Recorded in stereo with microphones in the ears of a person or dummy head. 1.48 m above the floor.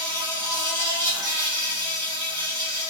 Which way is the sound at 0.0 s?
20° right (ahead or behind).